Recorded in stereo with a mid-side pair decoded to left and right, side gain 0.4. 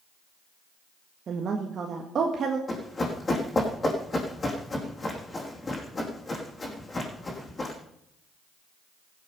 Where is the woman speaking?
55° right, 1.7 m.